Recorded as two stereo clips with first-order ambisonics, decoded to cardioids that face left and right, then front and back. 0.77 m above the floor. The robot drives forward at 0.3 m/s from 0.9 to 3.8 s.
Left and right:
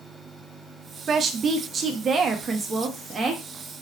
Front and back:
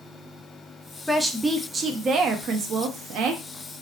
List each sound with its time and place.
1.1 s a woman speaking: 90° right, 0.6 m; by 3.8 s 165° right, 1.0 m